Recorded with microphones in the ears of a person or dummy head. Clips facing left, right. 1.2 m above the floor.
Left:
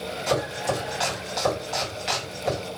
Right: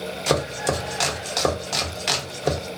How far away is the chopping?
About 0.9 m.